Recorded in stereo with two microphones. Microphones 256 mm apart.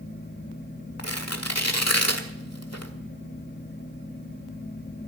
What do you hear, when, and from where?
1.0 s tearing paper: 80° left, 1.6 m